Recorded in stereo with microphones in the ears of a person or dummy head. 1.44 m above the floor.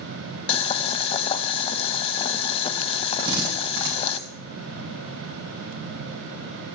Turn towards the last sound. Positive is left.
turn(degrees=-25)  # may be behind; listen again after turning